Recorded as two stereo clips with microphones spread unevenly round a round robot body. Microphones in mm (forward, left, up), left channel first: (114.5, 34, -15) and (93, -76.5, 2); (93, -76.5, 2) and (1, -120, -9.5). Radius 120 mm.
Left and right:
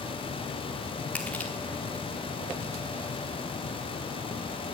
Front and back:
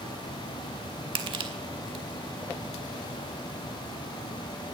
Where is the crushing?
160° left, 1.0 m.